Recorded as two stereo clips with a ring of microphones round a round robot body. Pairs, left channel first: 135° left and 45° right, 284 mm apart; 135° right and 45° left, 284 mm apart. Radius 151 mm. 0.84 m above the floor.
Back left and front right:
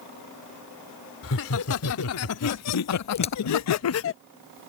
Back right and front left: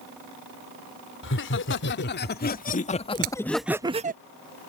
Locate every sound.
1.2 s laughter: 175° left; by 4.2 s 100° left
3.1 s a crack: 65° left